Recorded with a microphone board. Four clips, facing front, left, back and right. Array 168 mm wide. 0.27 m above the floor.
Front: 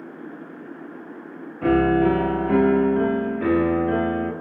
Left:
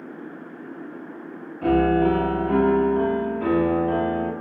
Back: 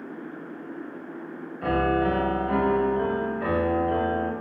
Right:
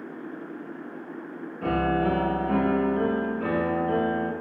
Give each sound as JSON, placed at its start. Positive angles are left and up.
{"t": 1.6, "sound": "a piano", "azimuth_deg": 0, "distance_m": 0.9}